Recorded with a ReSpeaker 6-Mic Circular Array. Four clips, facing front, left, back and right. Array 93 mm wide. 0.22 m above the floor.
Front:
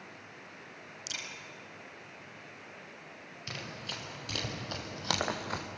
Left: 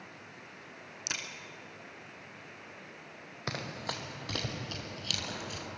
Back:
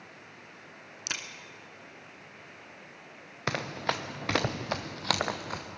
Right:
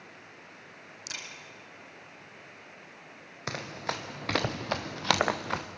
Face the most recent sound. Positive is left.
turn(degrees=-85)